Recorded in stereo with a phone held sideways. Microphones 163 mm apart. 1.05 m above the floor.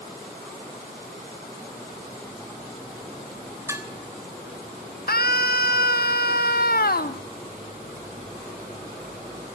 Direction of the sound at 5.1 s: 70° left (ahead or behind).